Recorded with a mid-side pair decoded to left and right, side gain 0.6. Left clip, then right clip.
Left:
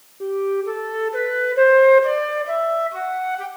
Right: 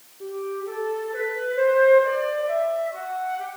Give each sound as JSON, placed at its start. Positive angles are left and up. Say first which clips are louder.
{"t": 0.2, "sound": "a flute", "louder": "left 8 dB", "azimuth_deg": 45, "distance_m": 1.1}